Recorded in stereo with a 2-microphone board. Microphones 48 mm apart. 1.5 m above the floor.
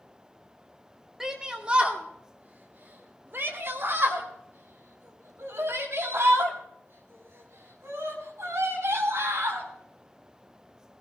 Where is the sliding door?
I don't hear a sliding door.